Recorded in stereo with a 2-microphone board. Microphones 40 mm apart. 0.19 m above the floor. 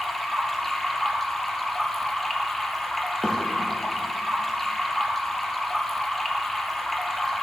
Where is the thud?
5° right (ahead or behind), 2 m.